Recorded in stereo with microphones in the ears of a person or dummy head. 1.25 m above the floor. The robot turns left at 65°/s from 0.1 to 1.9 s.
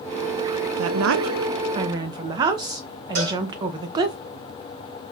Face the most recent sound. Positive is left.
turn(degrees=-65)  # may be behind; listen again after turning